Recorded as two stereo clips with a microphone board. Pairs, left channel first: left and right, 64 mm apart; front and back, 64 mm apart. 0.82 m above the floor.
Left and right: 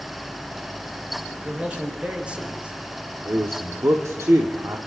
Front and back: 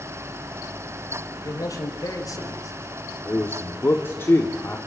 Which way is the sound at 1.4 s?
20° right.